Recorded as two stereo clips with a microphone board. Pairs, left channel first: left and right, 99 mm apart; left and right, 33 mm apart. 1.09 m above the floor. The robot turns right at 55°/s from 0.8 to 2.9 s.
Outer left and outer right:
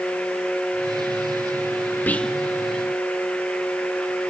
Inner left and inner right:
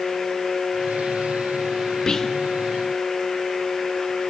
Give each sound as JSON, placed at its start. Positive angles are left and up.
{"t": 2.1, "sound": "whispering", "side_deg": 20, "distance_m": 1.0}